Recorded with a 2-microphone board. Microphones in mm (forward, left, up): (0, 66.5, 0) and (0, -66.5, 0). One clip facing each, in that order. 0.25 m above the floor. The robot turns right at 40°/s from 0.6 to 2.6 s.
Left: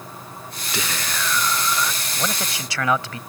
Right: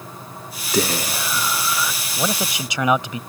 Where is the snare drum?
I don't hear a snare drum.